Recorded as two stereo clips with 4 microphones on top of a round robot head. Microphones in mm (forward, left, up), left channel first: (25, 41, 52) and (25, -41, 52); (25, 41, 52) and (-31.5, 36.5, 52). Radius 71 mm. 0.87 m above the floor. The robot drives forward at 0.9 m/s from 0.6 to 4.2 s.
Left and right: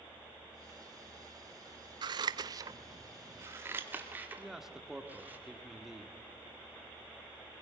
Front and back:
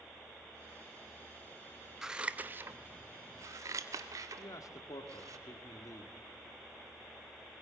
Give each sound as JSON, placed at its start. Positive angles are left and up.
{"t": 2.0, "sound": "scissors", "azimuth_deg": -95, "distance_m": 0.9}
{"t": 4.4, "sound": "a man speaking", "azimuth_deg": -5, "distance_m": 1.9}